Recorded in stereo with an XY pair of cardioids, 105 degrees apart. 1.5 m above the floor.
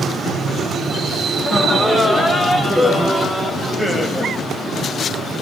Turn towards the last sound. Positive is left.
turn(degrees=-25)